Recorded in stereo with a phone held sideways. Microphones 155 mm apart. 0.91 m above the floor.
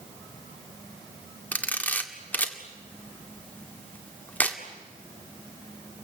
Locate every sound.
1.5 s a camera shutter: 10° left (ahead or behind), 1.9 m